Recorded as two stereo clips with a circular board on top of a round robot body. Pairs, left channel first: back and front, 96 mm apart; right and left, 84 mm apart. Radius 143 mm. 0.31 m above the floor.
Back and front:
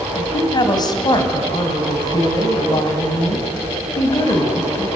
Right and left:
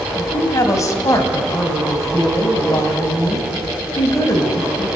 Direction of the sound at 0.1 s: 140° right.